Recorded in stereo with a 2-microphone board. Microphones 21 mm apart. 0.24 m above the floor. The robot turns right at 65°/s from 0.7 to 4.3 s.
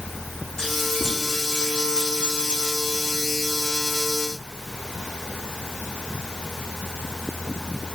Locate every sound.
0.6 s keys jangling: 30° left (ahead or behind), 8.5 m; by 3.2 s 45° right (ahead or behind), 8.5 m